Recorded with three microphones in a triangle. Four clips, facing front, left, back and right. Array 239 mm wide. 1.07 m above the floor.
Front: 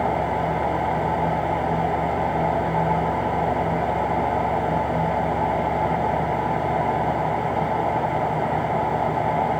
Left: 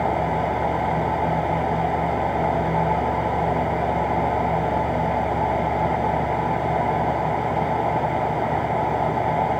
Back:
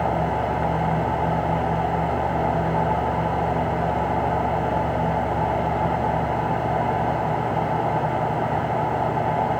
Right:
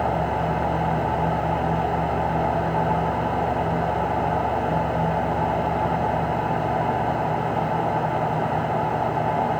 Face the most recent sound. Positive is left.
No sound to turn to.